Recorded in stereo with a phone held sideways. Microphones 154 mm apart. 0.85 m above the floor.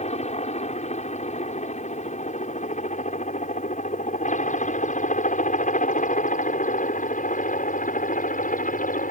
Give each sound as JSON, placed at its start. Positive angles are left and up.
{"t": 0.0, "sound": "a helicopter", "side_deg": 45}